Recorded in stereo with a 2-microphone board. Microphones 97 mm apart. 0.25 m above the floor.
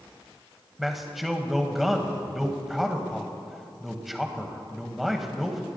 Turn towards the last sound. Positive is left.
turn(degrees=0)  # may be behind; listen again after turning